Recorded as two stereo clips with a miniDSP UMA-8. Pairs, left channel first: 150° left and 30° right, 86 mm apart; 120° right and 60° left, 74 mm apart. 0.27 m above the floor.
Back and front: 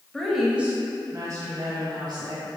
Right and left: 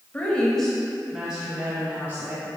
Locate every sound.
0.1 s a woman speaking: 140° right, 1.1 m; by 2.5 s 5° right, 2.5 m